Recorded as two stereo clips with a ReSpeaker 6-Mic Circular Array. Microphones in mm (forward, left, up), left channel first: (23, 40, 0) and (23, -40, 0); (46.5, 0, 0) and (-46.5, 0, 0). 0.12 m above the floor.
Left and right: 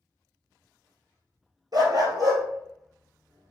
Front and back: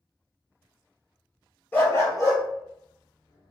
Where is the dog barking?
65° right, 1.1 m; by 3.5 s 25° right, 1.9 m.